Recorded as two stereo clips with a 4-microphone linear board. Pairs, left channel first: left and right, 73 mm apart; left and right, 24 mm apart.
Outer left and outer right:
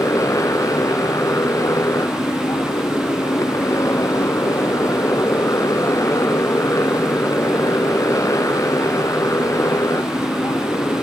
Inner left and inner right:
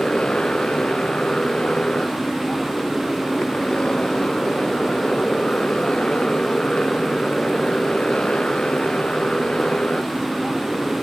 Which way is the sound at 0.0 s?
50° left (ahead or behind).